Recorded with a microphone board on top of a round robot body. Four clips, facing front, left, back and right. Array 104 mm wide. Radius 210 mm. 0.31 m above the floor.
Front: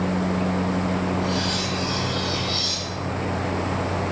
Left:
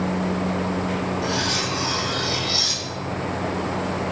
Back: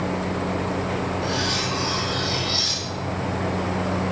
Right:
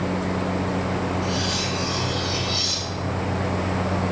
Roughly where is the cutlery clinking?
Behind left.